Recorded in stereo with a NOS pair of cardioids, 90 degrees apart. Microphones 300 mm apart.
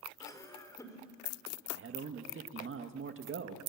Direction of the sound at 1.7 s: 45° right.